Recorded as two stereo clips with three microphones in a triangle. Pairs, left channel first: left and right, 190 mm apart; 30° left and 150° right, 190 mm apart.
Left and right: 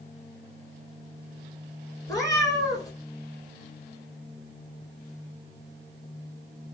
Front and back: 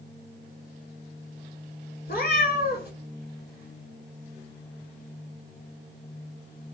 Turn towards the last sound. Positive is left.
turn(degrees=25)